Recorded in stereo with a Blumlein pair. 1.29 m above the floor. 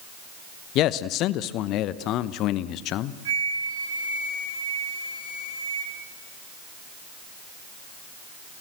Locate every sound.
0.8 s a man speaking: 35° left, 0.9 m
3.2 s a flute: 60° right, 3 m